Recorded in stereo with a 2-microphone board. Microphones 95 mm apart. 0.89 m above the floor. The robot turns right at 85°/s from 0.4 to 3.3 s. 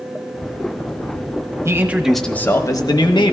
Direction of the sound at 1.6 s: 40° right.